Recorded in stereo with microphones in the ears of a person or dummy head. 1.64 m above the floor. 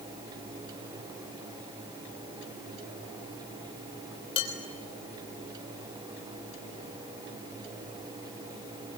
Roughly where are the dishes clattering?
Left.